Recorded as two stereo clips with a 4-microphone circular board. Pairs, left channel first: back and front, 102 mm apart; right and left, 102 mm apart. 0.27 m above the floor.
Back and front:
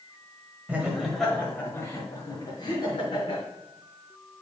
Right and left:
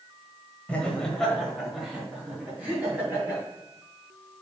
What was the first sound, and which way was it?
Laughter, 45° right.